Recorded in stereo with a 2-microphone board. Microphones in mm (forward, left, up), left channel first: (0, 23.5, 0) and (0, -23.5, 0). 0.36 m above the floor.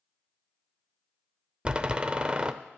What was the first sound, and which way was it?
A door slam, 20° right (ahead or behind).